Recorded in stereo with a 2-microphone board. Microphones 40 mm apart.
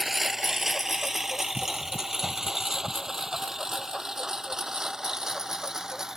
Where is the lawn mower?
5° right (ahead or behind); by 6.2 s 15° right (ahead or behind).